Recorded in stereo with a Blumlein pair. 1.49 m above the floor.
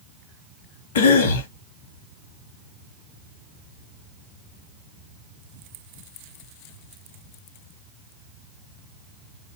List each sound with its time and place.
0.9 s a cough: 60° left, 1.1 m